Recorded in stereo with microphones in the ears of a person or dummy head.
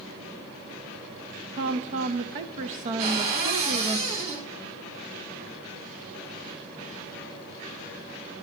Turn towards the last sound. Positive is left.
turn(degrees=-45)  # may be behind; listen again after turning